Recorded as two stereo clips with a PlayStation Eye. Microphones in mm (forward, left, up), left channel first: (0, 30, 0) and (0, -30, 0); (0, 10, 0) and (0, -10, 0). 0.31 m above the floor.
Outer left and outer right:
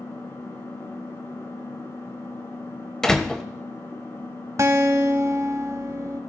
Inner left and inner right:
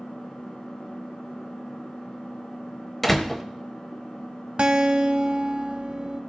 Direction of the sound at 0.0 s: 55° left (ahead or behind).